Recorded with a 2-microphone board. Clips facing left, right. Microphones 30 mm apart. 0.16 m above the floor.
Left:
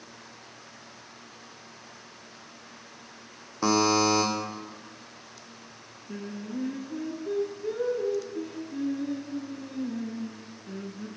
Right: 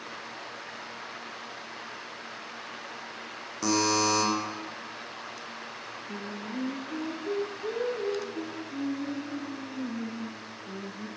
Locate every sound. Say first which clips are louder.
3.6 s a buzzer: left 3 dB; 30° left (ahead or behind), 2.5 m
6.1 s singing: left 2 dB; 5° right (ahead or behind), 1.1 m